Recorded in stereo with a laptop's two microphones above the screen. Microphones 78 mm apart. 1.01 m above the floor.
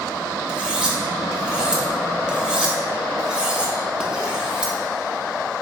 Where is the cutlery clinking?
10° right (ahead or behind), 0.8 m.